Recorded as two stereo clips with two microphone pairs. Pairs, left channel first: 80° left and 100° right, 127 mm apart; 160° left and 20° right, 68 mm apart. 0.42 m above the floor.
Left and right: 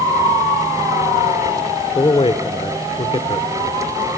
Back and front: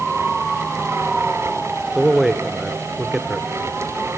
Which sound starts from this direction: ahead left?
A man speaking, at 1.9 s.